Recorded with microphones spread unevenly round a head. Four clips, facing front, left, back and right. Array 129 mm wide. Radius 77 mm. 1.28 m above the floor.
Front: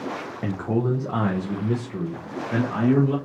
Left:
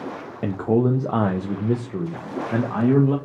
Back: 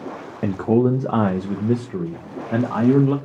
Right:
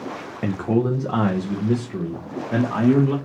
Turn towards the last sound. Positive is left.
turn(degrees=160)